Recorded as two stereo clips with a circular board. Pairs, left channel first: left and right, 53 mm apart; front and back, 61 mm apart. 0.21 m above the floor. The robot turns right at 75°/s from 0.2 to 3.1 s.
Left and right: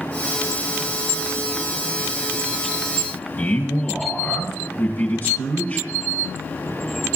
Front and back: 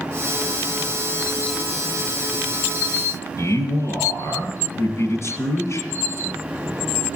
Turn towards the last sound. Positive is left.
turn(degrees=35)